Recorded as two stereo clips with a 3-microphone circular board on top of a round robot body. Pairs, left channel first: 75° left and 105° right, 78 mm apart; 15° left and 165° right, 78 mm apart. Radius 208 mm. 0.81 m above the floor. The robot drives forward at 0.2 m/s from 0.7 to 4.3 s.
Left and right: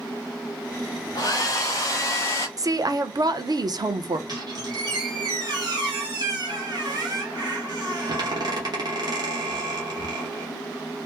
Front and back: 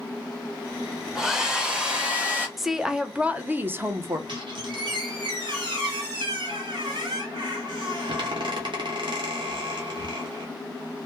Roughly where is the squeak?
Behind right.